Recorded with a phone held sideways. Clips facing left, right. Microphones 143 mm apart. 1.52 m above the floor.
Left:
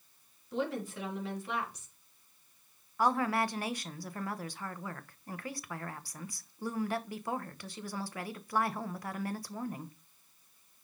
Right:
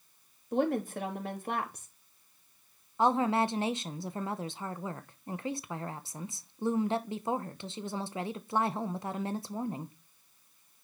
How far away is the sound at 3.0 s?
About 0.8 m.